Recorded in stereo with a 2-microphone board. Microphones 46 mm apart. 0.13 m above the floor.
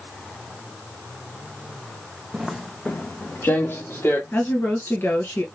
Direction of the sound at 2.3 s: 20° right (ahead or behind).